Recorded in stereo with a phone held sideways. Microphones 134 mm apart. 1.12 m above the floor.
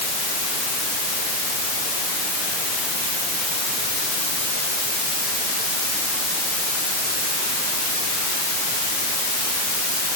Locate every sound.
Only background noise.